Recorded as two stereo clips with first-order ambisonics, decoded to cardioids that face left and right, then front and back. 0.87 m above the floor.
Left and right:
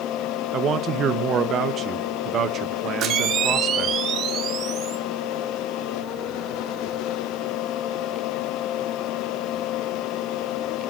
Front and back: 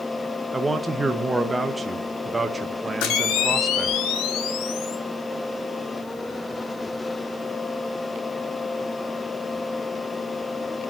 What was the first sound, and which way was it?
A man speaking, 110° right.